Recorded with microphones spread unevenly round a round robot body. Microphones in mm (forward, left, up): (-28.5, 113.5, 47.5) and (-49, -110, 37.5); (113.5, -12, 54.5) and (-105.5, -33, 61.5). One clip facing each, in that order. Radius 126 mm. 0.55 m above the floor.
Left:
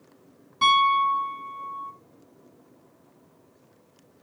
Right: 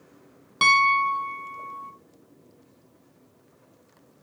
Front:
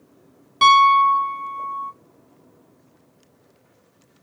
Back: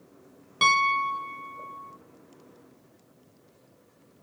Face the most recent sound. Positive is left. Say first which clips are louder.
# left 1 dB, front 11 dB
turn(degrees=-85)